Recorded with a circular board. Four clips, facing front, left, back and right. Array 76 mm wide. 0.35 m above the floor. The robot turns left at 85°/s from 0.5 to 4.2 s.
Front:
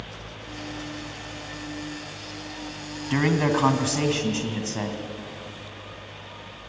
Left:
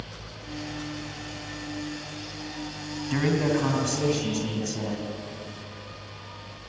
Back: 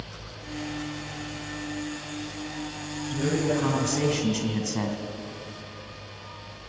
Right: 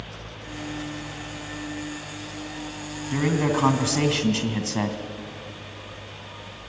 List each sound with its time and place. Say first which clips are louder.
3.1 s a man speaking: right 1 dB, front 4 dB; 15° left, 2.5 m; by 5.0 s 80° right, 2.5 m